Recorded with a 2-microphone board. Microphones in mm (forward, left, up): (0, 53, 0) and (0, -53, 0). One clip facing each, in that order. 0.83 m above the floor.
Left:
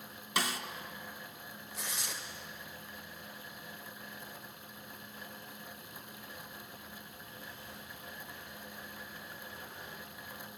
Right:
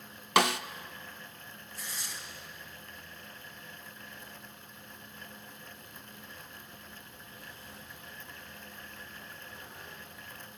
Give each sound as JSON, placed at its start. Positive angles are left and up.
{"t": 0.4, "sound": "a snare drum", "side_deg": -70, "distance_m": 0.7}
{"t": 1.7, "sound": "tearing paper", "side_deg": 85, "distance_m": 2.5}